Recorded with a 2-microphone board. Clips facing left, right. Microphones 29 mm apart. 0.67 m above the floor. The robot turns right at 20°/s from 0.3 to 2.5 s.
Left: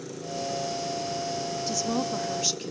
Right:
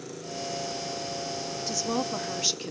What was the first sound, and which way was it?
A woman speaking, 5° right (ahead or behind).